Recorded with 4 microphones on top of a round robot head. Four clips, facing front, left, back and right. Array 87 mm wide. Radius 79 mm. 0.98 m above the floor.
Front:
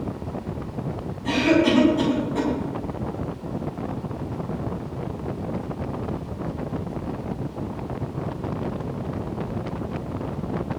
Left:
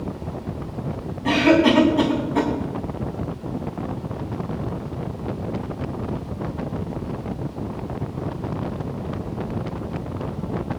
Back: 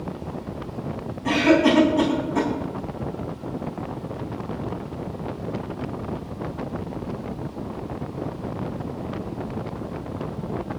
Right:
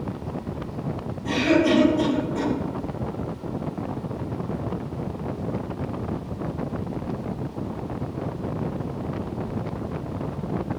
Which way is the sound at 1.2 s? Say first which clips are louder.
Left 4 dB, back 2 dB; 115° left.